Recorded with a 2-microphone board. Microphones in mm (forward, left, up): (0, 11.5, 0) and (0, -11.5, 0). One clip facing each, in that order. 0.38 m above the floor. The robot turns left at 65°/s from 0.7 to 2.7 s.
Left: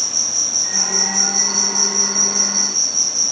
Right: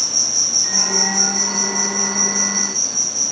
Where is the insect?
160° right, 1.7 m; by 3.3 s 70° left, 1.7 m.